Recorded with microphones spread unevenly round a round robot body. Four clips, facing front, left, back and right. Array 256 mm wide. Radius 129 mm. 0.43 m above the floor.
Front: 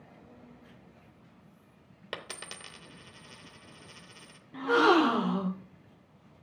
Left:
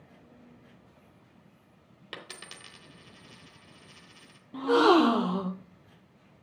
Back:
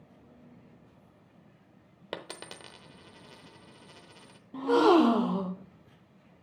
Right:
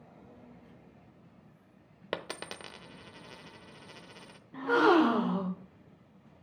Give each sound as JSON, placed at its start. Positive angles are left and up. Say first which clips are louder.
{"t": 2.1, "sound": "a dropped coin", "louder": "right 8 dB, back 2 dB", "azimuth_deg": -100, "distance_m": 0.7}
{"t": 4.5, "sound": "a gasp", "louder": "left 3 dB, back 2 dB", "azimuth_deg": 130, "distance_m": 0.9}